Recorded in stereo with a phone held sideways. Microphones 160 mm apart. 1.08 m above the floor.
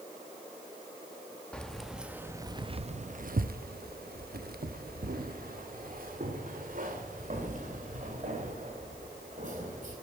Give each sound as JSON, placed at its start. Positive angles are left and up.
{"t": 1.5, "sound": "keys jangling", "side_deg": 5, "distance_m": 0.9}